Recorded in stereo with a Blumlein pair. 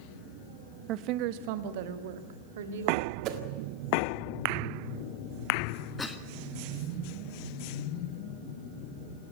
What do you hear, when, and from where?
0.9 s a woman speaking: 35° right, 1.0 m; by 3.1 s 60° right, 3 m
3.2 s a whoosh: 40° right, 1.7 m
6.0 s a cough: 10° left, 1.7 m